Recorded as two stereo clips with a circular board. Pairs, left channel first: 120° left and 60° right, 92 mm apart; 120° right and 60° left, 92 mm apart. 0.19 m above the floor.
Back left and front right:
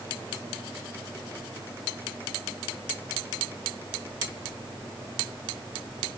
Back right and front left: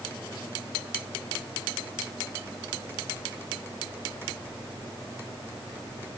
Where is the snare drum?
No snare drum in this recording.